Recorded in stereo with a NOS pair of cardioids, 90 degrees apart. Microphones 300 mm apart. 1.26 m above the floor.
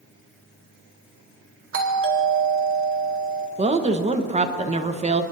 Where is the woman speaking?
20° right, 1.1 m.